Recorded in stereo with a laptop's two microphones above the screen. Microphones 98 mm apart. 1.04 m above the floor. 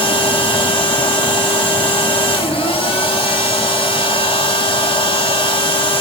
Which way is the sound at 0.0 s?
70° left (ahead or behind).